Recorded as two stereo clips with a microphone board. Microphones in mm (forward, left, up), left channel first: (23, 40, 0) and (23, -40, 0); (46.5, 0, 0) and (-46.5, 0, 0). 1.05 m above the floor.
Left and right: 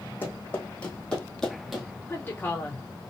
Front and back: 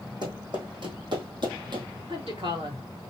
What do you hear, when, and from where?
0.2 s running footsteps: 155° left, 2.5 m; by 1.9 s 175° right, 1.6 m
2.1 s a woman speaking: 155° left, 1.9 m